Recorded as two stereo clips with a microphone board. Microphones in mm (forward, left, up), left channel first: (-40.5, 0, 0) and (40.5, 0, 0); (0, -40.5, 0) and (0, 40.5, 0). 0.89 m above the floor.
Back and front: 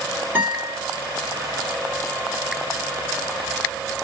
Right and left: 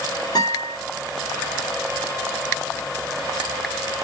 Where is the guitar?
65° right, 1.9 m.